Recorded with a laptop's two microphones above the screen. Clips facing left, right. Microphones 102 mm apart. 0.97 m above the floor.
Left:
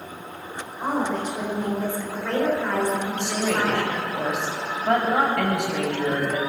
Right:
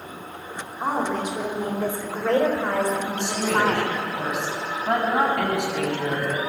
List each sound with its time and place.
0.8 s a woman speaking: 5° right (ahead or behind), 4 m; by 4.0 s 40° right (ahead or behind), 3 m
3.1 s a woman speaking: 70° left (ahead or behind), 6 m